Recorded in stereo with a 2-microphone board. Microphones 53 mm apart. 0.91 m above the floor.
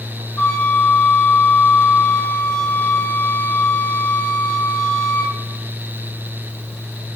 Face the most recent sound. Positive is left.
turn(degrees=20)  # may be behind; listen again after turning